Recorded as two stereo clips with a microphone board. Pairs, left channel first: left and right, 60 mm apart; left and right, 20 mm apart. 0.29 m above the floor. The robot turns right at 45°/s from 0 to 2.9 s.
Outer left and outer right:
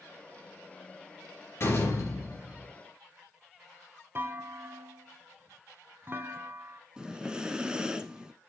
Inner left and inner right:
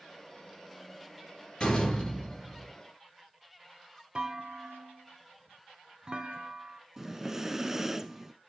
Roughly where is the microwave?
I don't hear a microwave.